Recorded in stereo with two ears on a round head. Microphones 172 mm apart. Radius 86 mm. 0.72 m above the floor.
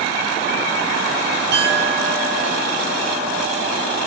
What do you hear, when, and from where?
1.5 s a clink: 55° right (ahead or behind), 4.5 m